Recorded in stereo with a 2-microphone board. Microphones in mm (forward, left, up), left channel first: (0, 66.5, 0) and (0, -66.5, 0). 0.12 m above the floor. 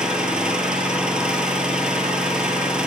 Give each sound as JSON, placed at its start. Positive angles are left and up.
{"t": 0.0, "sound": "an engine running", "side_deg": -5, "distance_m": 0.7}